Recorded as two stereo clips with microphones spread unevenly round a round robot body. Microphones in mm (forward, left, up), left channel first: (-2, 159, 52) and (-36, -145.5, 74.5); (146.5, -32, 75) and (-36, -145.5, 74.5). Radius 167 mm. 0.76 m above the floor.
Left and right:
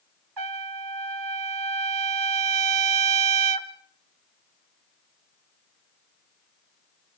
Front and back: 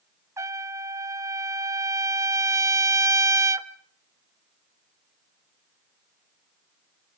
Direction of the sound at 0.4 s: 70° right.